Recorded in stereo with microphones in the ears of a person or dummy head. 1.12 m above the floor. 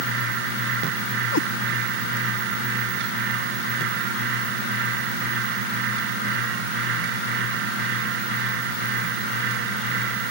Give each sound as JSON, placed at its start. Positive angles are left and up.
{"t": 1.3, "sound": "a cat meowing", "side_deg": 70}